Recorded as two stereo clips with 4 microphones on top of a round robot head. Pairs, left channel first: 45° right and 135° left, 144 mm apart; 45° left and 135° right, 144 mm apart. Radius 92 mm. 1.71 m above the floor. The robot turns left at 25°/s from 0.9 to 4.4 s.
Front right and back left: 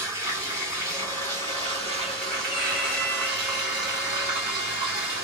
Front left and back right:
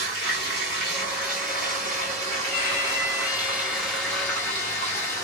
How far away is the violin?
About 1.8 m.